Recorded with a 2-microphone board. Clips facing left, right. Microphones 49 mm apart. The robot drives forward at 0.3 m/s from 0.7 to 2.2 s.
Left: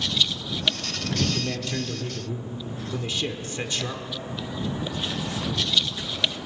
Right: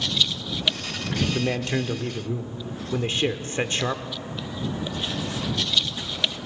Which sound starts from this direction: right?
A man speaking, at 1.3 s.